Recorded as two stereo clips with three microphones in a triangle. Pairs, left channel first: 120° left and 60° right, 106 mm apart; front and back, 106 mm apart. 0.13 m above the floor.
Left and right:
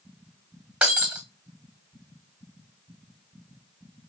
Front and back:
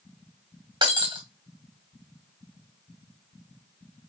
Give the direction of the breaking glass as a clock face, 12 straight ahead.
5 o'clock.